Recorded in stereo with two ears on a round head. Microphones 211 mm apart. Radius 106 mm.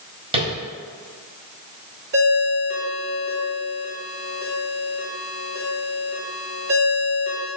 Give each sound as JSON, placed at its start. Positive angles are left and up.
{"t": 0.3, "sound": "tapping", "side_deg": -25, "distance_m": 1.8}
{"t": 2.1, "sound": "a ringtone", "side_deg": -45, "distance_m": 1.4}